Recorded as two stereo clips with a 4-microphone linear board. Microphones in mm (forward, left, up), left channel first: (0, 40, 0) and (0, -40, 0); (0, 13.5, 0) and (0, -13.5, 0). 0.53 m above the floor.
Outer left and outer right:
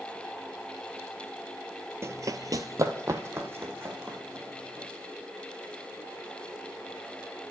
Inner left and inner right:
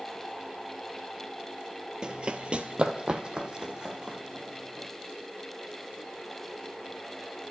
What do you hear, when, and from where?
2.0 s running footsteps: 35° right (ahead or behind), 0.7 m; by 4.9 s 25° right (ahead or behind), 3 m